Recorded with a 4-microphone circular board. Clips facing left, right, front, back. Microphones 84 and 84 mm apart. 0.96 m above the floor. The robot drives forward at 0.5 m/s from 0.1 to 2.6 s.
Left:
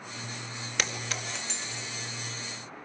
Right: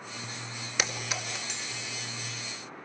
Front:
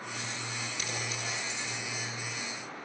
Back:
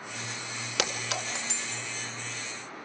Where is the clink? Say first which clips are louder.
Right 1 dB, back 9 dB; 175° right, 1.9 m.